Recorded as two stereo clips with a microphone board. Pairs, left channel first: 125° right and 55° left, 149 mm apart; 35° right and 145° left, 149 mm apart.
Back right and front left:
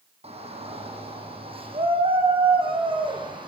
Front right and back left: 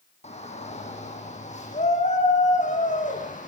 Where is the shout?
10° left, 8.5 m; by 3.5 s straight ahead, 9 m.